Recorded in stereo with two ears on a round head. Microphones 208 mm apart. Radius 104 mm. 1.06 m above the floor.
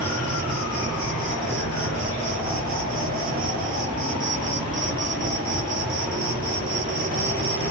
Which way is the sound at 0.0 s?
35° right (ahead or behind).